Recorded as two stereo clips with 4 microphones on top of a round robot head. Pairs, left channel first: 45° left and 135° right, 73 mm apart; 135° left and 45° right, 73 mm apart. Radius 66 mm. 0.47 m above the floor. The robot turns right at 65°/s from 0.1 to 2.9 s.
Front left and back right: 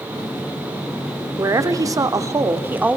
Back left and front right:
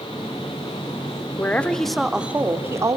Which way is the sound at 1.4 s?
170° right.